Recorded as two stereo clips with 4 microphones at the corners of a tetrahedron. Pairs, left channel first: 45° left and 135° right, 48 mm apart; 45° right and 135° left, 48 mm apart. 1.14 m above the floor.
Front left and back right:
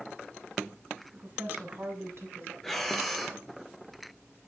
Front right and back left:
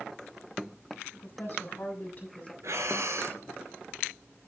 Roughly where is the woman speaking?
Right.